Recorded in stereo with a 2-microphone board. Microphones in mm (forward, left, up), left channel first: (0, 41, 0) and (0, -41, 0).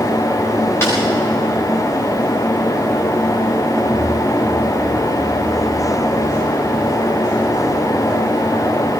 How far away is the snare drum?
About 7.5 m.